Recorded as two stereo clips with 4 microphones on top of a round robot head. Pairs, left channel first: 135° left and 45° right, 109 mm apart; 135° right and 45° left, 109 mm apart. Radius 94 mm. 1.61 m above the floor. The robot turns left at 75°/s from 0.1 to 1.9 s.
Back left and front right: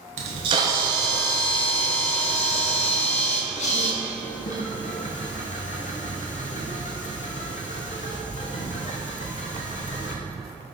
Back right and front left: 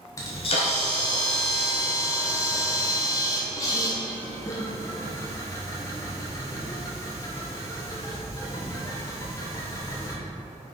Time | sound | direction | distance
0.2 | a camera shutter | 70° right | 1.1 m